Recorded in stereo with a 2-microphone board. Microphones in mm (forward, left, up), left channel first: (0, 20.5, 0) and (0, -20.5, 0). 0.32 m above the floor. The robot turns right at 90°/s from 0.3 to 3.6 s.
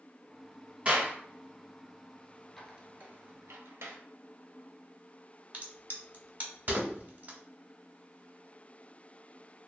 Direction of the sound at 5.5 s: 45° right (ahead or behind).